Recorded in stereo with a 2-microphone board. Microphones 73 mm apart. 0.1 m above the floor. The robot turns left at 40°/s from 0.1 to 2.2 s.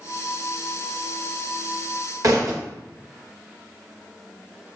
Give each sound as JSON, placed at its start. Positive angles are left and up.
{"t": 2.2, "sound": "a thud", "side_deg": -55, "distance_m": 1.7}